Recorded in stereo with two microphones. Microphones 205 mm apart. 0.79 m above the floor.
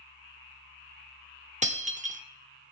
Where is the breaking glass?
35° right (ahead or behind), 0.9 m.